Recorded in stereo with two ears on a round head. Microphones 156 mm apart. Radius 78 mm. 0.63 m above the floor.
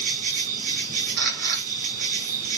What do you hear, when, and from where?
0.0 s an insect: 50° right (ahead or behind), 1.2 m
1.2 s a camera shutter: 55° right (ahead or behind), 1.7 m